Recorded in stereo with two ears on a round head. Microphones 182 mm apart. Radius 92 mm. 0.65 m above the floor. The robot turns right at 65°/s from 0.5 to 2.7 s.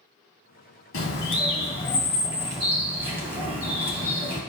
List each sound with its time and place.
0.9 s a bird: 95° left, 2.5 m; by 4.4 s 150° right, 2.5 m